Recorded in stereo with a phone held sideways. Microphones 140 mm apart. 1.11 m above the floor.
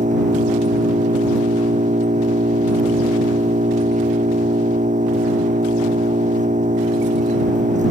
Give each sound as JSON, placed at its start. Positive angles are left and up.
{"t": 0.0, "sound": "an engine running", "side_deg": -55}